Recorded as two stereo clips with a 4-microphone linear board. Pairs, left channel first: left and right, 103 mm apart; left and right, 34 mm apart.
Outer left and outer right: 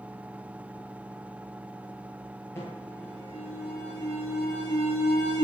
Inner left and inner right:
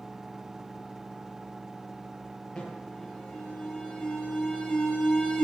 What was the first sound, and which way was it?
An alarm, 25° left (ahead or behind).